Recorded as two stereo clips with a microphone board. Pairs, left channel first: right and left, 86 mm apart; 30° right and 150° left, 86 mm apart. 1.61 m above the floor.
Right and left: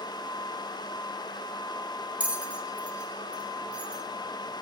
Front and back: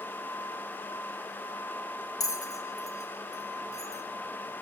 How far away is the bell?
About 0.7 m.